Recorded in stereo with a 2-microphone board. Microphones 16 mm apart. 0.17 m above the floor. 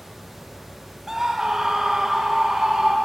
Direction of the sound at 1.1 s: 30° right (ahead or behind).